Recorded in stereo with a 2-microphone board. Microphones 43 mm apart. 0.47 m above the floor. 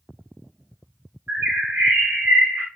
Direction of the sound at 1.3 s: 50° right (ahead or behind).